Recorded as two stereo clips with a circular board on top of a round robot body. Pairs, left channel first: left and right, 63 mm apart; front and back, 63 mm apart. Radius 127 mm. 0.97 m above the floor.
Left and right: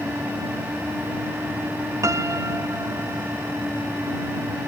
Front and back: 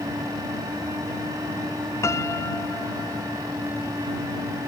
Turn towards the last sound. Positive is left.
turn(degrees=-50)